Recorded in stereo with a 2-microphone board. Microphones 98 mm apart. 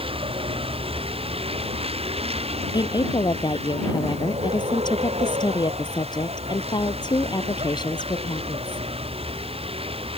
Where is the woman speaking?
45° left (ahead or behind).